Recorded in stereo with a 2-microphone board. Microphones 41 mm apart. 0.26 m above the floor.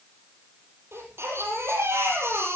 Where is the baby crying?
75° right (ahead or behind), 6 m.